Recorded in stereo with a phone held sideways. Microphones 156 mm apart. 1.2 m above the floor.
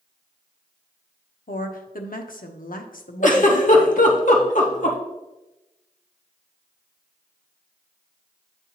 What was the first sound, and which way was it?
A woman speaking, 75° left (ahead or behind).